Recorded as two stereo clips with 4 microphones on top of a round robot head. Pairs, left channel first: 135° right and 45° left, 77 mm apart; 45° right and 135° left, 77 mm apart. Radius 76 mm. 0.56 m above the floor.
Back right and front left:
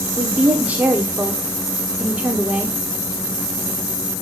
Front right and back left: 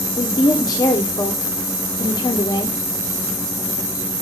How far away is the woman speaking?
About 1.5 m.